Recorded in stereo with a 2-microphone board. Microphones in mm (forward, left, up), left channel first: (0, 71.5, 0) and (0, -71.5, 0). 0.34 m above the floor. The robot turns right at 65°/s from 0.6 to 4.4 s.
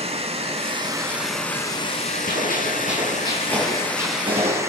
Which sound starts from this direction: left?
A gunshot, at 2.3 s.